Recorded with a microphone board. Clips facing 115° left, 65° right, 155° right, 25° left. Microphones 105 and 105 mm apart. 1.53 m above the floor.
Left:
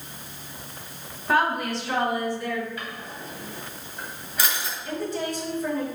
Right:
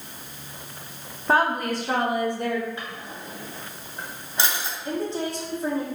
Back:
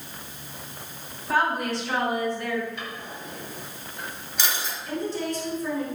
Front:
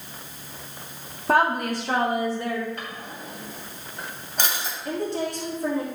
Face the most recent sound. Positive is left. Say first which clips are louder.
# right 1 dB, front 2 dB
turn(degrees=-5)